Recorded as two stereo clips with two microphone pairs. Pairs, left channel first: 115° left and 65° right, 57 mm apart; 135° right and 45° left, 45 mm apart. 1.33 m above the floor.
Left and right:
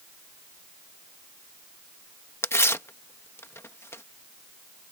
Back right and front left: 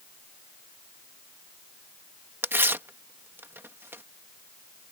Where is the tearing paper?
70° left.